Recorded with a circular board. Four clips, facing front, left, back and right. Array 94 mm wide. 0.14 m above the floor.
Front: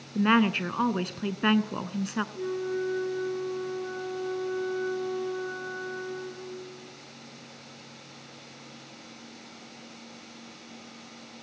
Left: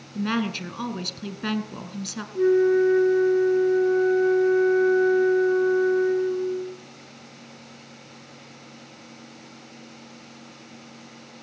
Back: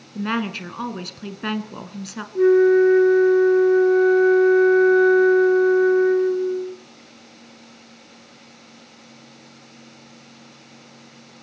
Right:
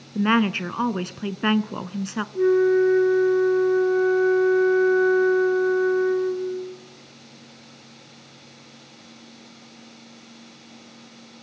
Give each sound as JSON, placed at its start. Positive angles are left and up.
{"t": 0.1, "sound": "a woman speaking", "azimuth_deg": -75, "distance_m": 1.3}
{"t": 2.4, "sound": "a flute", "azimuth_deg": -175, "distance_m": 1.5}